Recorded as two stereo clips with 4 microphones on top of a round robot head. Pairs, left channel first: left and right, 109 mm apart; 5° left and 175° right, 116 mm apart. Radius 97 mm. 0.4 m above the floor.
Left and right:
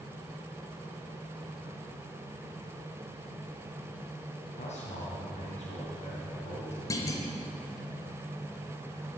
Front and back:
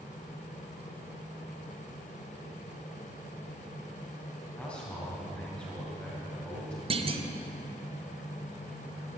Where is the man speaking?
85° left, 2.5 m.